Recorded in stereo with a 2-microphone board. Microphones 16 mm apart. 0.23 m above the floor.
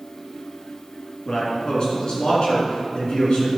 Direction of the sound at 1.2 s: 55° left (ahead or behind).